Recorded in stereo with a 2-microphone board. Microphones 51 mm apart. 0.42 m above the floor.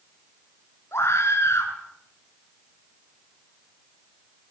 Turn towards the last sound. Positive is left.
turn(degrees=65)  # may be behind; listen again after turning